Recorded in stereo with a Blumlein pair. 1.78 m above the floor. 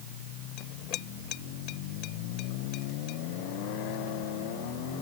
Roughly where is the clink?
Ahead left.